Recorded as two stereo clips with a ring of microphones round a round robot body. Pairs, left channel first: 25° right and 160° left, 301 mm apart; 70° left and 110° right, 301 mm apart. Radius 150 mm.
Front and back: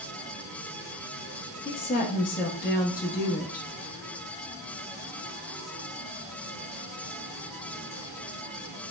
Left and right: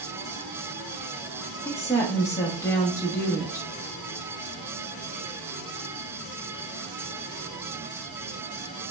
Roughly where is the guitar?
I don't hear a guitar.